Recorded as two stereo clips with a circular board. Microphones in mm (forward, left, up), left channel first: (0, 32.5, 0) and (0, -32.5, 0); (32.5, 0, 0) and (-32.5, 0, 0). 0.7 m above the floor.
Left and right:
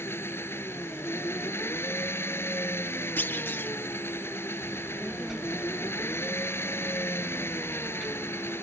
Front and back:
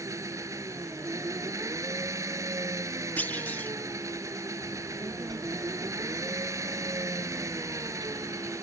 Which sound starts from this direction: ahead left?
A clunk, at 3.2 s.